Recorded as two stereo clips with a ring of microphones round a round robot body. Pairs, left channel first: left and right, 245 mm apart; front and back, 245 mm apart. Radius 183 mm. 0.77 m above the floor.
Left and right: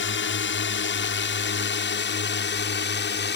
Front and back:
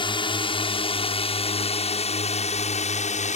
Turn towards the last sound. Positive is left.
turn(degrees=55)